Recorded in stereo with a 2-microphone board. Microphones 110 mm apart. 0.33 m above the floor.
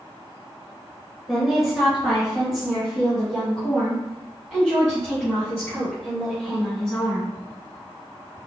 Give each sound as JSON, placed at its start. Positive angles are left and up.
{"t": 1.3, "sound": "a woman speaking", "side_deg": 0, "distance_m": 1.4}